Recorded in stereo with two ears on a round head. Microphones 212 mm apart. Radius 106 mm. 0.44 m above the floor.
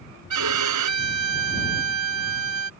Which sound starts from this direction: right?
A violin, at 0.3 s.